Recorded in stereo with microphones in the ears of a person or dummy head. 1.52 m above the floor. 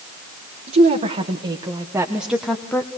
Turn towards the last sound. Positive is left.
turn(degrees=15)  # may be behind; listen again after turning